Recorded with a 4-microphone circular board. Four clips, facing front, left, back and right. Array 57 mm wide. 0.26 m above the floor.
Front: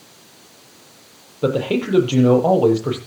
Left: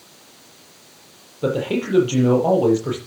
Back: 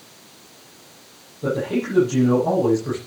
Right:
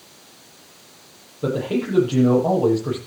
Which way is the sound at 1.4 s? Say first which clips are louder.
Left 1 dB, front 3 dB; 20° left.